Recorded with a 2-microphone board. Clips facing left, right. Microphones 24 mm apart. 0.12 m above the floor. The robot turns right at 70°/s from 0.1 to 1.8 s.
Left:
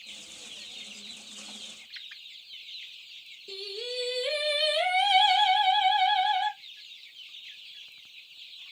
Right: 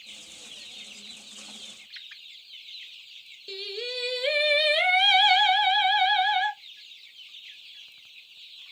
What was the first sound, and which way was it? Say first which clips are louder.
Singing: right 3 dB; 40° right (ahead or behind).